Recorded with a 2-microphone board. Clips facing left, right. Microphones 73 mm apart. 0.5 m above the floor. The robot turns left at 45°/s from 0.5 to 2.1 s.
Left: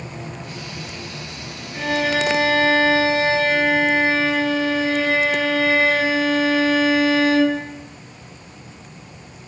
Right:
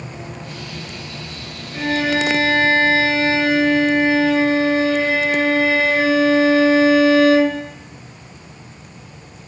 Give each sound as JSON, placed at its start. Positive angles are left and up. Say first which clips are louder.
{"t": 1.7, "sound": "a violin", "louder": "right 2 dB", "side_deg": -55, "distance_m": 1.9}